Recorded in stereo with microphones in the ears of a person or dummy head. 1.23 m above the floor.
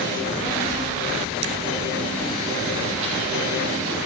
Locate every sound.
0.1 s a child speaking: 70° right (ahead or behind), 3 m; by 4.0 s 15° right (ahead or behind), 3.5 m